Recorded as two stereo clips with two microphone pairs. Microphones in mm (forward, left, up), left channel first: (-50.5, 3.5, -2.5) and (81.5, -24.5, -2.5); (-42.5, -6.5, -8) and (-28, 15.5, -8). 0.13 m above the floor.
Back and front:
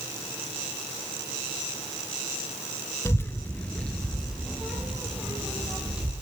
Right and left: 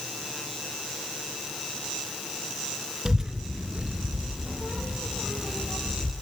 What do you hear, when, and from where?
3.0 s a child speaking: 115° left, 0.8 m; by 6.1 s 70° left, 2.5 m